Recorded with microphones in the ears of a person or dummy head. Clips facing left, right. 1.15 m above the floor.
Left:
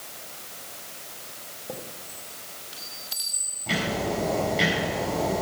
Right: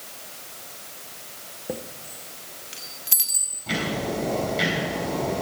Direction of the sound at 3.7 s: 5° left (ahead or behind).